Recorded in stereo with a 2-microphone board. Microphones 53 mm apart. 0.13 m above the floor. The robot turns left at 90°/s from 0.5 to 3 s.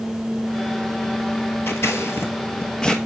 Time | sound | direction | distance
1.7 | scissors | 50° left (ahead or behind) | 0.9 m